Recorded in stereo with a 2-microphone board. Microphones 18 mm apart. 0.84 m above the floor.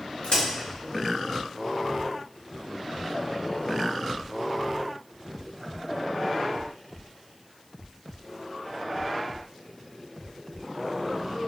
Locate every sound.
0.2 s a crack: 70° left (ahead or behind), 0.9 m